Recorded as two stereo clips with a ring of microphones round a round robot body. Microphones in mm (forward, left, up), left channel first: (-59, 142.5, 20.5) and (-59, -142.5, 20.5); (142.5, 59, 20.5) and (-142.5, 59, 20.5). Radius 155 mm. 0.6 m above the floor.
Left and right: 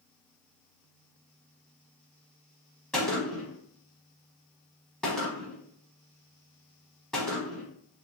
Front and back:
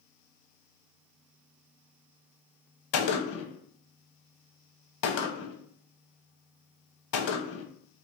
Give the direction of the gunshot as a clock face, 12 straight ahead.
12 o'clock.